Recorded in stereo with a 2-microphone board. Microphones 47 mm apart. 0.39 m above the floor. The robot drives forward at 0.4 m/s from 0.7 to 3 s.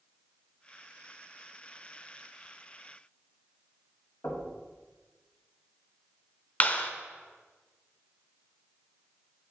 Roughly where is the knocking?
Left.